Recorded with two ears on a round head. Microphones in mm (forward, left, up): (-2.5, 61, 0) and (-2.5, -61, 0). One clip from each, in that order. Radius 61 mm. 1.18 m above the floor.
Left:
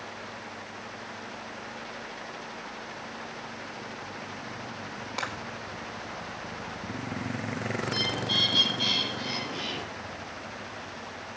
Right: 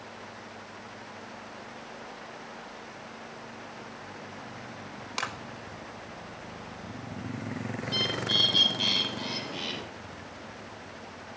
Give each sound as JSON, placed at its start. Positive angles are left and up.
{"t": 5.2, "sound": "a clap", "side_deg": -85, "distance_m": 4.0}
{"t": 7.8, "sound": "a bird", "side_deg": -30, "distance_m": 7.0}